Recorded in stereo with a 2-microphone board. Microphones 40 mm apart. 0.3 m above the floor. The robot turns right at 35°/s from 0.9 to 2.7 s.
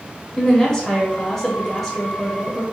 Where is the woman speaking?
15° left (ahead or behind), 1.1 m; by 2.6 s centre (ahead or behind), 1.1 m.